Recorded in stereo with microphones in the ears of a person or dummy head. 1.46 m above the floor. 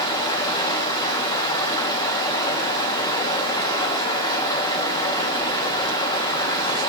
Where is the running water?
20° left (ahead or behind), 2 m.